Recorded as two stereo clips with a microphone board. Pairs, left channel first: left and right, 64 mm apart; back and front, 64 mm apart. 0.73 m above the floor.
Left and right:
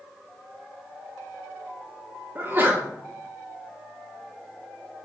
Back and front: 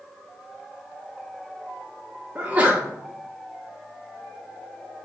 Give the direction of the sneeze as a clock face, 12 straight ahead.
2 o'clock.